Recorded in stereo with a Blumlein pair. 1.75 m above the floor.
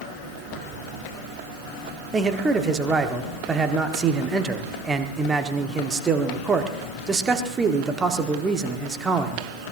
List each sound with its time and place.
2.1 s a man speaking: 15° right, 1.4 m